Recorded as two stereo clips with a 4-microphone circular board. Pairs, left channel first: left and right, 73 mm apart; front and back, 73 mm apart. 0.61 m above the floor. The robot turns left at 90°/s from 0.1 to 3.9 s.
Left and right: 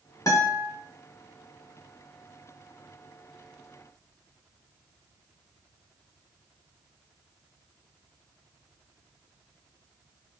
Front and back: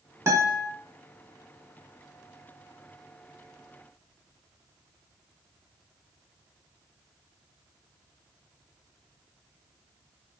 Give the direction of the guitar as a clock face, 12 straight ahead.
8 o'clock.